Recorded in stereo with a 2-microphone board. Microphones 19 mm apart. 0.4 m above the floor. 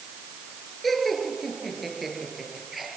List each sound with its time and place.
0.8 s laughter: centre (ahead or behind), 6 m; by 2.9 s 15° right (ahead or behind), 7.5 m